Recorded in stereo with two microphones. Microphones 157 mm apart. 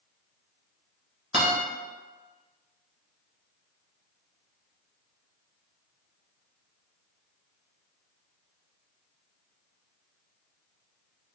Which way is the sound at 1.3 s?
40° right (ahead or behind).